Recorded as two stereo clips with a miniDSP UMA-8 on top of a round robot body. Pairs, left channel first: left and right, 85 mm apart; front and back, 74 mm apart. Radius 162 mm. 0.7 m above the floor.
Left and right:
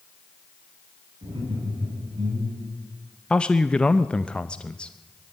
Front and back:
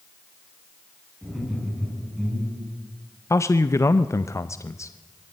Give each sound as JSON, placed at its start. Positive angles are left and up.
{"t": 1.2, "sound": "laughter", "azimuth_deg": -90, "distance_m": 8.0}
{"t": 3.3, "sound": "a man speaking", "azimuth_deg": 15, "distance_m": 0.8}